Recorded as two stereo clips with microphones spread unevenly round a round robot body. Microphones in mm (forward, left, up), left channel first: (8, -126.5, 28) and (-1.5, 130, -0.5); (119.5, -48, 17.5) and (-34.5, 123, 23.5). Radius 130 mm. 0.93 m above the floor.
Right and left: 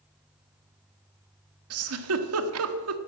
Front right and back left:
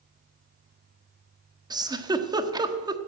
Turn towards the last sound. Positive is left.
turn(degrees=60)